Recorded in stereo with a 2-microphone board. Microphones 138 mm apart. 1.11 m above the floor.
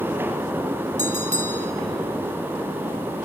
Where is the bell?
60° right (ahead or behind), 1.7 m.